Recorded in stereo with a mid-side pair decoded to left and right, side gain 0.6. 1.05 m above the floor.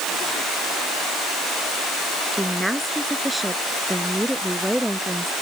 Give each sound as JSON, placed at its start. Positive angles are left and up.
{"t": 2.4, "sound": "a woman speaking", "azimuth_deg": 0}